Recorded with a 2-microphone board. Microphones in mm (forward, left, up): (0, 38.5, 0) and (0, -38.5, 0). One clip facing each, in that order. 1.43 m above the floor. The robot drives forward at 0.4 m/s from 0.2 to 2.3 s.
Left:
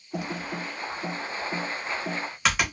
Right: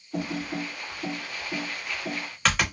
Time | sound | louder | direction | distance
0.1 | typing on a keyboard | right 2 dB | 10° left (ahead or behind) | 0.6 m